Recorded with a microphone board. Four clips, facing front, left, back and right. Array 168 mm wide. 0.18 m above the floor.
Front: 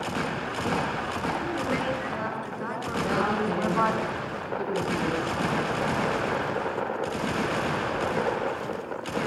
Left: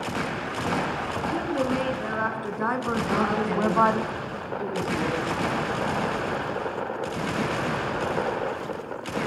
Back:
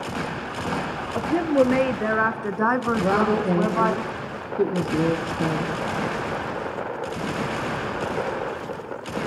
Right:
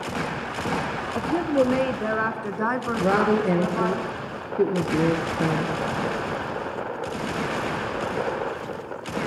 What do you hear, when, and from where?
1.1 s a woman speaking: 150° right, 4 m; by 4.0 s 100° left, 1.7 m
3.0 s a woman speaking: 125° right, 3.5 m